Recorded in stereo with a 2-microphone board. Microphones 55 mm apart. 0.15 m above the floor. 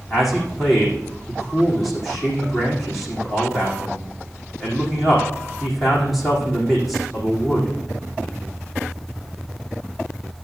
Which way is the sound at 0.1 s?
Centre (ahead or behind).